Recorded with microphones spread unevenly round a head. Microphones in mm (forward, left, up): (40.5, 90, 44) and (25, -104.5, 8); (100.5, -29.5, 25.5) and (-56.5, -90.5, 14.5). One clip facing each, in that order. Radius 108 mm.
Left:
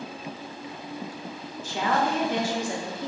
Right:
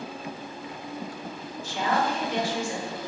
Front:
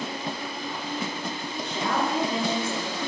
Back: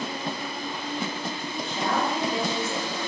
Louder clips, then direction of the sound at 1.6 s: Left 1 dB, even; 75° left.